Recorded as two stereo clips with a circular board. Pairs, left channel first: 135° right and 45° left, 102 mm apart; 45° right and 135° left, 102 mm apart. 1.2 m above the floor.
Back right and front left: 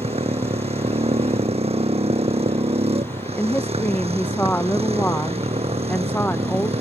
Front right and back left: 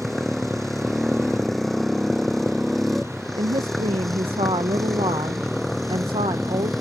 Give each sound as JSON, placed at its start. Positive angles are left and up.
{"t": 0.0, "sound": "a motorcycle", "azimuth_deg": 40}
{"t": 3.4, "sound": "a woman speaking", "azimuth_deg": 155}